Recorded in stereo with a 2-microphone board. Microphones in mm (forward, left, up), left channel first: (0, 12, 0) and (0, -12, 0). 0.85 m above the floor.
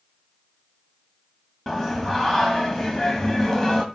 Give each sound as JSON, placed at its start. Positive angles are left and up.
{"t": 1.7, "sound": "singing", "side_deg": 15, "distance_m": 1.5}